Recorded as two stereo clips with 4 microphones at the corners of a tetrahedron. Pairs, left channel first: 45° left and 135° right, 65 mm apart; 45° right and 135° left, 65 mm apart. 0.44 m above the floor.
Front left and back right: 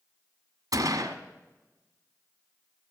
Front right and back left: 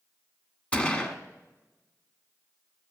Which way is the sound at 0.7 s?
115° right.